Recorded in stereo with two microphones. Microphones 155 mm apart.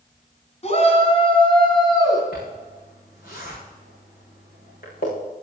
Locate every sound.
0.6 s a shout: 45° left (ahead or behind), 4 m; by 2.2 s 25° left (ahead or behind), 4.5 m
2.3 s a zipper: 65° left (ahead or behind), 8 m